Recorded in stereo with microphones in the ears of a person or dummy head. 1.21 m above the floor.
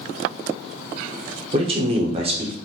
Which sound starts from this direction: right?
A man speaking, at 1.5 s.